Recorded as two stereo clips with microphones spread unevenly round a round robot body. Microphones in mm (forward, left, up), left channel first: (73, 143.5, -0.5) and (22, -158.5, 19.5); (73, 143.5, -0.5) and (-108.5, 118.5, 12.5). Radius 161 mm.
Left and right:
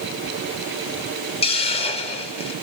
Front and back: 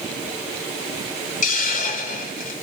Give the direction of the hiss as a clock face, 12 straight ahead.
11 o'clock.